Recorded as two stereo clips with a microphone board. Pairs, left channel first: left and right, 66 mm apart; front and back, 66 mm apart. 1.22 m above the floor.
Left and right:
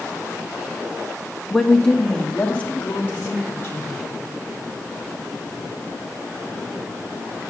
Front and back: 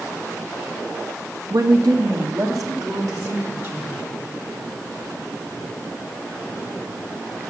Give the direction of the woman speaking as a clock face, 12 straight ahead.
6 o'clock.